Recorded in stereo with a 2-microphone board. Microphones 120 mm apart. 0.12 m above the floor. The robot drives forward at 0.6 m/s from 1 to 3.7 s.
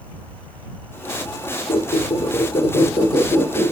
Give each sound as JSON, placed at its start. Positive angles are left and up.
{"t": 1.7, "sound": "a squeak", "side_deg": 55, "distance_m": 1.4}